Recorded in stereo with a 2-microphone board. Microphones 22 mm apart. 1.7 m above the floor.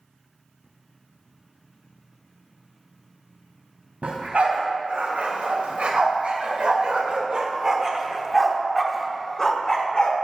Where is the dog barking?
70° right (ahead or behind), 3.5 m; by 10.2 s 40° left (ahead or behind), 1.7 m.